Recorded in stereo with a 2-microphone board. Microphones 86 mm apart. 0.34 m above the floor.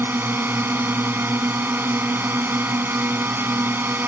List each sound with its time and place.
0.0 s a drone: 25° right (ahead or behind)